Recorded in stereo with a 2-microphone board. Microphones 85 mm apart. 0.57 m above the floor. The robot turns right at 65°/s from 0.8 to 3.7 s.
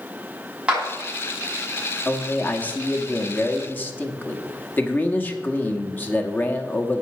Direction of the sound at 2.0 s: 5° left (ahead or behind).